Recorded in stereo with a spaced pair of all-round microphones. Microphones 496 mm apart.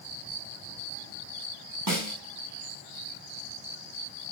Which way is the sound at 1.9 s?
40° right (ahead or behind).